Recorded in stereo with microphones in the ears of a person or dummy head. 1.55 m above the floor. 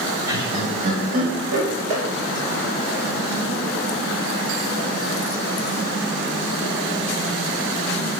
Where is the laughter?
30° right (ahead or behind), 1.0 m; by 2.0 s 75° right (ahead or behind), 1.7 m.